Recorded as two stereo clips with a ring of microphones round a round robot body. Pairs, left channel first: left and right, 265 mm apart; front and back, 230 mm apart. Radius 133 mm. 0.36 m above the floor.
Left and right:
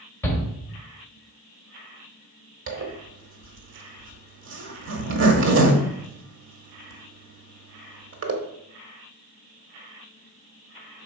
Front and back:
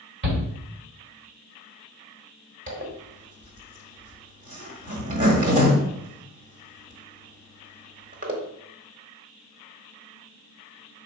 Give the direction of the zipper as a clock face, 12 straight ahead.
4 o'clock.